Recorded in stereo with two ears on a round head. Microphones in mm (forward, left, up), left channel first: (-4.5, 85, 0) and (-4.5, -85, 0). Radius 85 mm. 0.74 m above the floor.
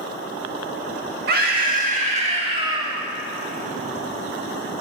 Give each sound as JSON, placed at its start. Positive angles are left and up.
{"t": 1.3, "sound": "a scream", "side_deg": -55, "distance_m": 1.6}